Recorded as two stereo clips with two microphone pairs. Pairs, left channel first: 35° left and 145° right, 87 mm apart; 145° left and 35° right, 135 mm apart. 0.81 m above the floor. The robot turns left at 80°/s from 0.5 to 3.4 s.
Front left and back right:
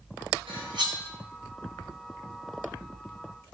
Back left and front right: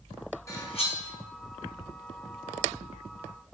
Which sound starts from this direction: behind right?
Cutlery clinking, at 0.5 s.